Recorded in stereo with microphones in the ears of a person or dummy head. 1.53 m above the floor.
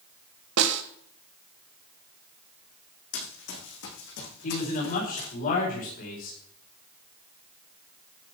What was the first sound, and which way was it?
A snare drum, 65° right (ahead or behind).